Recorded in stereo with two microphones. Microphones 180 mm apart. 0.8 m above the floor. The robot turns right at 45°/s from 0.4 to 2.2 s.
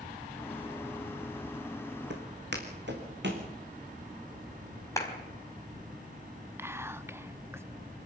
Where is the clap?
15° left (ahead or behind), 4.5 m.